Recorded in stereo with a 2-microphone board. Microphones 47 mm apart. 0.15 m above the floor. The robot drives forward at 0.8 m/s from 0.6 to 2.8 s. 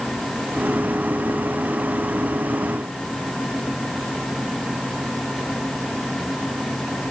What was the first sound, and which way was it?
Only background noise.